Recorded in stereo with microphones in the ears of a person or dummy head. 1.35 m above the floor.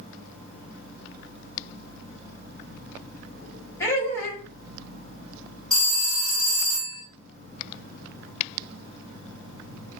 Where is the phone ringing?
5° left (ahead or behind), 1.5 m.